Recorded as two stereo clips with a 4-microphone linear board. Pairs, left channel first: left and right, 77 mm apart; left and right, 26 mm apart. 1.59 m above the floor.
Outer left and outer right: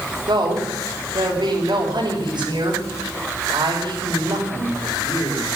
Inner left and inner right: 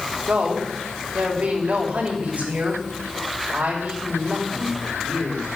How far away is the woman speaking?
About 5.5 m.